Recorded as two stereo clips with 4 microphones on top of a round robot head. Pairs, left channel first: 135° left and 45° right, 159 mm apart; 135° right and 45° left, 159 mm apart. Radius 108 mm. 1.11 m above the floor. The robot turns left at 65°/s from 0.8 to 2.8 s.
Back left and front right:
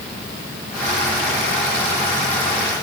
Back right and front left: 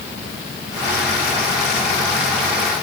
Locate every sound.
Only background noise.